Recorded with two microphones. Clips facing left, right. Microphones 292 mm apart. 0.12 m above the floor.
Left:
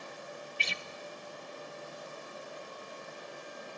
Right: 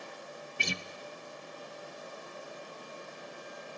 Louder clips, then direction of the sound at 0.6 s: Right 5 dB; 50° right (ahead or behind).